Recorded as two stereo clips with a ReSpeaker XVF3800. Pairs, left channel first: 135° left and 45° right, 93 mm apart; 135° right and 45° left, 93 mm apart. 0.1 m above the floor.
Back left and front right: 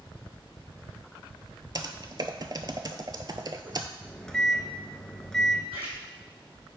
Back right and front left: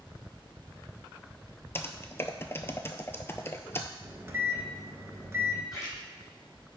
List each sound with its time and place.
1.8 s typing on a keyboard: 75° right, 0.5 m
4.0 s a microwave: 60° left, 0.9 m
5.7 s a splash: 40° right, 3 m